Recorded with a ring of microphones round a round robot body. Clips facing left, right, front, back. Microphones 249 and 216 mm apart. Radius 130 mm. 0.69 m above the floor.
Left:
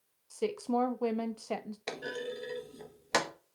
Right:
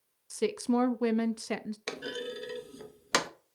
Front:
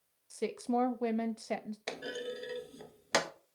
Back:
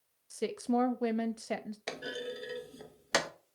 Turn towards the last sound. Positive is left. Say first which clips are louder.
# left 2 dB, even
turn(degrees=-95)